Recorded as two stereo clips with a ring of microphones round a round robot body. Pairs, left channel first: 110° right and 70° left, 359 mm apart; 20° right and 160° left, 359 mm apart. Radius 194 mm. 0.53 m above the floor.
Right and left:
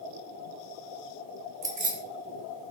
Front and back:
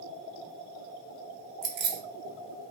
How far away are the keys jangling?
About 0.6 m.